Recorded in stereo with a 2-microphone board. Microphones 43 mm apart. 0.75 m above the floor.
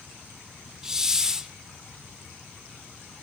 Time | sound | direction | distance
0.8 | a hiss | 10° right (ahead or behind) | 0.6 m